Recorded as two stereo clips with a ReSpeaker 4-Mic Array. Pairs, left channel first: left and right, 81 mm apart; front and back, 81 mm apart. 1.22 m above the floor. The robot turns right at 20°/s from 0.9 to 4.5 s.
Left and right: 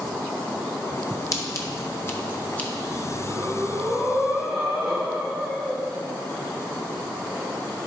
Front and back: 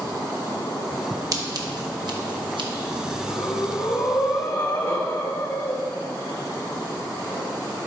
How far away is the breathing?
About 1.5 m.